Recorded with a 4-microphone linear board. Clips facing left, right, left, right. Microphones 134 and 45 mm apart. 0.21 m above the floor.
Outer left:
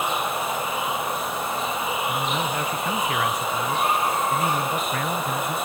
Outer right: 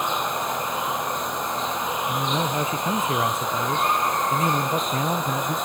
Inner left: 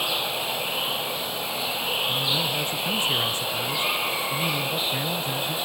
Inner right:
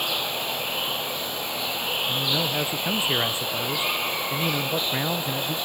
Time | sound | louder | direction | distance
0.0 | running water | even, inner left 1 dB | 5° left (ahead or behind) | ?
2.1 | a man speaking | outer right 1 dB, even | 25° right (ahead or behind) | ?